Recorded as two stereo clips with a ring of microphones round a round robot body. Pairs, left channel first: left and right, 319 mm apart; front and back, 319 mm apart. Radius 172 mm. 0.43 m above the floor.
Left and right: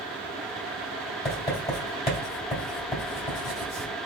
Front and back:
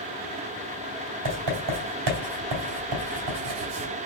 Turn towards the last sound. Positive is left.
turn(degrees=160)